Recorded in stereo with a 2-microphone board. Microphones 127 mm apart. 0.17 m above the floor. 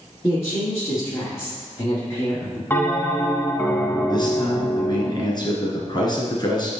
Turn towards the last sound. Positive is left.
turn(degrees=35)  # may be behind; listen again after turning